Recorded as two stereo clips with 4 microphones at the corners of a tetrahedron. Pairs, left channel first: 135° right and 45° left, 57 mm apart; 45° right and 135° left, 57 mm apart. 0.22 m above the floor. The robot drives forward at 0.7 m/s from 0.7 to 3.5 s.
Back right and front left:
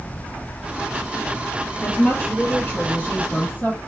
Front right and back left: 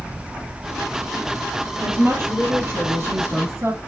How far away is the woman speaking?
About 4.5 m.